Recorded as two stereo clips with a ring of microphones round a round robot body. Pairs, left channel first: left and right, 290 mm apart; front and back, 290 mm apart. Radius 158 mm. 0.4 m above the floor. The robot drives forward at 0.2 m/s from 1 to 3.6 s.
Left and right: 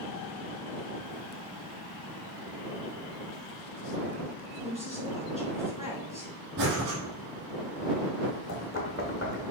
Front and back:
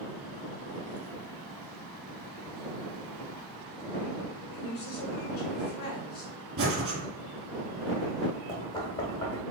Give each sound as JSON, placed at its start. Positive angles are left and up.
{"t": 4.5, "sound": "a woman speaking", "azimuth_deg": 35, "distance_m": 1.6}
{"t": 6.6, "sound": "breathing", "azimuth_deg": -135, "distance_m": 1.8}
{"t": 8.5, "sound": "knocking", "azimuth_deg": 70, "distance_m": 0.9}